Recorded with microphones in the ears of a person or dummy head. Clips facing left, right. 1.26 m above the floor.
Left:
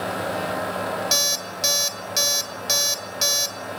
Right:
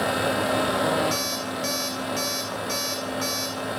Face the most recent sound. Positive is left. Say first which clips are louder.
# right 1 dB
turn(degrees=50)  # may be behind; listen again after turning